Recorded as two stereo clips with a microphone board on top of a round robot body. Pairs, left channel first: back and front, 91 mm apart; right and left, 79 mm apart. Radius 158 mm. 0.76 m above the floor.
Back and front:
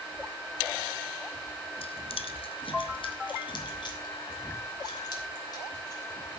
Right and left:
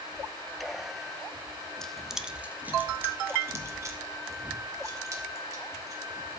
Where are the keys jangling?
175° right, 1.3 m; by 6.4 s 130° left, 5 m.